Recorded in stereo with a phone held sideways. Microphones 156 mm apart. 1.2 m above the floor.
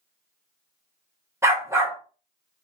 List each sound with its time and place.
1.4 s a dog barking: 15° right (ahead or behind), 0.6 m